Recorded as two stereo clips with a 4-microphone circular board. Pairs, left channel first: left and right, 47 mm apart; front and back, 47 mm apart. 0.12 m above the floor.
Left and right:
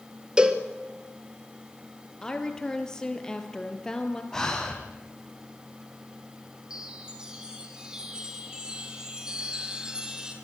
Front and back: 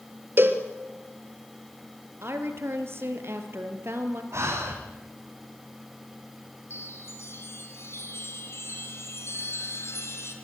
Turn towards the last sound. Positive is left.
turn(degrees=-15)